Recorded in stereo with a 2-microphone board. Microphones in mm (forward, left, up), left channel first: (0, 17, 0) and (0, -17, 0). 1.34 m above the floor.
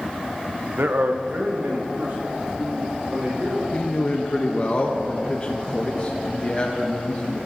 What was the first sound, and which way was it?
A man speaking, 80° right.